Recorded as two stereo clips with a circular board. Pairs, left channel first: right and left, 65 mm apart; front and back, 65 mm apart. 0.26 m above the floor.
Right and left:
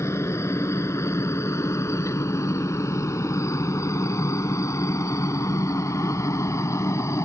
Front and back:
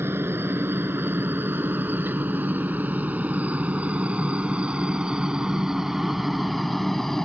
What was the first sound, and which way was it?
A helicopter, 130° right.